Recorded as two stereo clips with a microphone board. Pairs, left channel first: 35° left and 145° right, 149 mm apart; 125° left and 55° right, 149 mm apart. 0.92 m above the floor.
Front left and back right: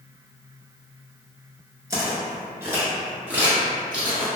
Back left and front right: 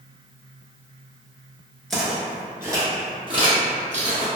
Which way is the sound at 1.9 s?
155° right.